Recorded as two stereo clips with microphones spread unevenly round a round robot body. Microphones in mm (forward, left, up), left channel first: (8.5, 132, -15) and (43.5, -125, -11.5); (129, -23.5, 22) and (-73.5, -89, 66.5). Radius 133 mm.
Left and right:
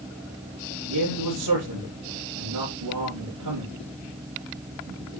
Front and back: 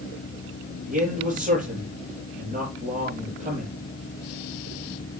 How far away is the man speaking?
About 6.5 m.